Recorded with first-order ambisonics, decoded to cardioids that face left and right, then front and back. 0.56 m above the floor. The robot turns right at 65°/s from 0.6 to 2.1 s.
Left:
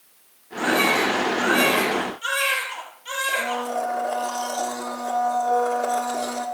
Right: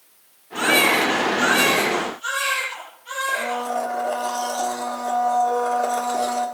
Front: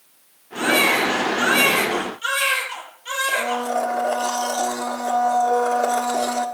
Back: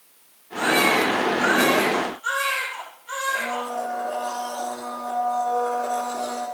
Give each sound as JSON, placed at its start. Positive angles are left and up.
{"t": 0.6, "sound": "a baby crying", "azimuth_deg": -65, "distance_m": 5.5}
{"t": 3.3, "sound": "a blender", "azimuth_deg": 0, "distance_m": 1.6}